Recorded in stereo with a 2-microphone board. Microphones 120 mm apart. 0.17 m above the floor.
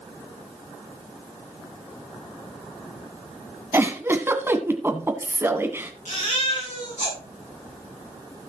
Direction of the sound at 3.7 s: 20° right (ahead or behind).